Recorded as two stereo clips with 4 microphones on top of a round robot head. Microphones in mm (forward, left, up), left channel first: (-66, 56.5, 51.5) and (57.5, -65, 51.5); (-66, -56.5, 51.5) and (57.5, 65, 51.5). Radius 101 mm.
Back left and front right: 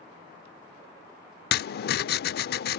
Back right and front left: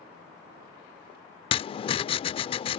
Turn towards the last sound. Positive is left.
turn(degrees=165)